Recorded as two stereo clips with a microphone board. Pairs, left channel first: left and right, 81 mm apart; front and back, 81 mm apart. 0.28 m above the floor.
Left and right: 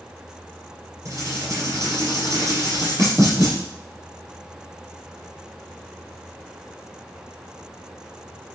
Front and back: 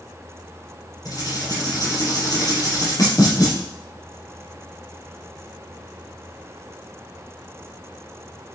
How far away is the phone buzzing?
I don't hear a phone buzzing.